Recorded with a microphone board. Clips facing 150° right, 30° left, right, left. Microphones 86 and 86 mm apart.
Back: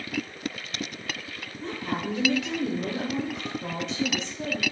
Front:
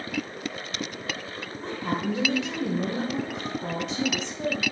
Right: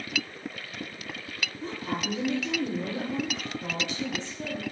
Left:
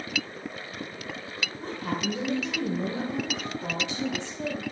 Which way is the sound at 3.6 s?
115° left.